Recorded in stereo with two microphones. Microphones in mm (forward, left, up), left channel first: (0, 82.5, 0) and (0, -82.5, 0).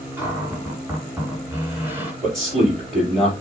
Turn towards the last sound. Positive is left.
turn(degrees=0)  # may be behind; listen again after turning